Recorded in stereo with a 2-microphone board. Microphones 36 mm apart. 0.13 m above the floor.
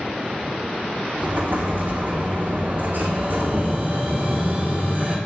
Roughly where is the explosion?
Right.